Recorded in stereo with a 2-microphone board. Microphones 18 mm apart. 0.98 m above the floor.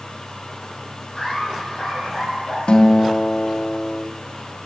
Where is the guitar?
75° left (ahead or behind), 0.8 m.